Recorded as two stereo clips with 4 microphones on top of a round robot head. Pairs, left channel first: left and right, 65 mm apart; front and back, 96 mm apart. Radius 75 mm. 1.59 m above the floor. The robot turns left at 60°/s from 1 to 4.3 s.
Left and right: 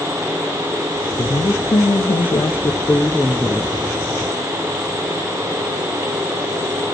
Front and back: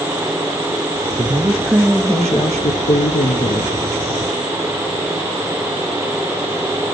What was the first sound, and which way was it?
A woman speaking, 125° left.